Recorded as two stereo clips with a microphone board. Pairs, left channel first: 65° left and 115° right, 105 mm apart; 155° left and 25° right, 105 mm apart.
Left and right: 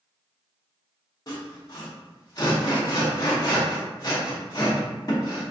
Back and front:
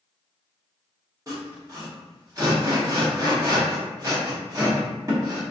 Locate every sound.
1.3 s sawing: 25° left, 1.1 m